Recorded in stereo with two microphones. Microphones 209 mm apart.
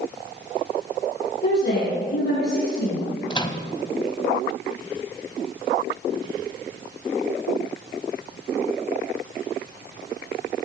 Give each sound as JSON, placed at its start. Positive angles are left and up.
{"t": 1.4, "sound": "a woman speaking", "side_deg": 55, "distance_m": 6.0}
{"t": 3.3, "sound": "a microwave", "side_deg": 20, "distance_m": 0.8}